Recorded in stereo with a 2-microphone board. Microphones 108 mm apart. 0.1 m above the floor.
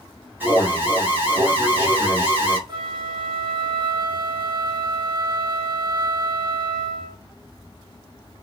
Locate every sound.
0.4 s an alarm: 15° right (ahead or behind), 1.9 m
2.7 s a flute: 45° right (ahead or behind), 0.7 m